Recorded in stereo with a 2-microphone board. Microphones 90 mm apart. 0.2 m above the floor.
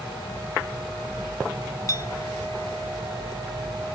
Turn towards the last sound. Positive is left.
turn(degrees=40)  # may be behind; listen again after turning